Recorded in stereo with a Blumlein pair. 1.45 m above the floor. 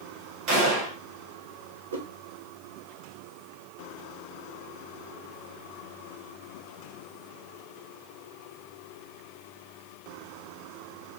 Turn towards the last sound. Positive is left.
turn(degrees=-65)